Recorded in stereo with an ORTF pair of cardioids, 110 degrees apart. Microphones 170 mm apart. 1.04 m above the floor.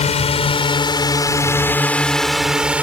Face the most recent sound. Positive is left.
turn(degrees=-10)